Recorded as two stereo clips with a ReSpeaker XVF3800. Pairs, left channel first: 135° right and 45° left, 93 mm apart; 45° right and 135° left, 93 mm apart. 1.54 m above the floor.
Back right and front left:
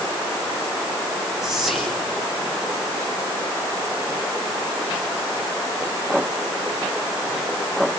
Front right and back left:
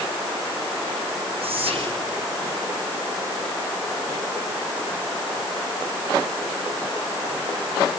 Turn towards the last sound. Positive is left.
turn(degrees=130)